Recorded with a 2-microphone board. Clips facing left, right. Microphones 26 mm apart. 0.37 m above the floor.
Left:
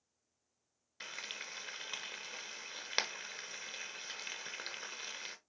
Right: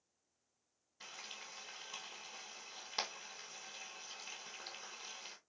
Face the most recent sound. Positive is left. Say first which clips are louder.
# left 6 dB
turn(degrees=60)  # may be behind; listen again after turning